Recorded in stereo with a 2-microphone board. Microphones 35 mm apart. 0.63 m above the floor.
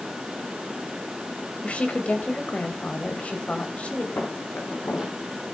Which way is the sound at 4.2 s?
80° left.